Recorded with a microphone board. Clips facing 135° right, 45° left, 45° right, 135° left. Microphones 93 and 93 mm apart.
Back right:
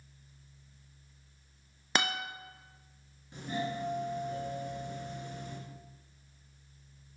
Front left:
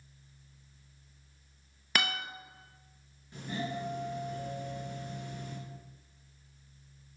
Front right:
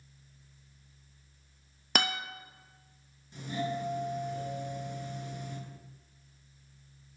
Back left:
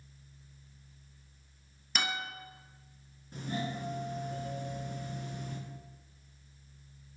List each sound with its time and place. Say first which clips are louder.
1.9 s a guitar: back right 1 dB, front right 3 dB; 70° right, 0.7 m
3.3 s a doorbell: back right 1 dB, front right 3 dB; 160° left, 2.5 m